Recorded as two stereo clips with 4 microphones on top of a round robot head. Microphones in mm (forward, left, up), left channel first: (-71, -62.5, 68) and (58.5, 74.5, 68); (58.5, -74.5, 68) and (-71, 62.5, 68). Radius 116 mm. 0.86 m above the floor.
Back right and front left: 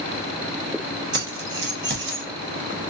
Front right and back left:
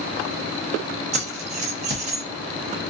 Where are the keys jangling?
75° left, 1.1 m.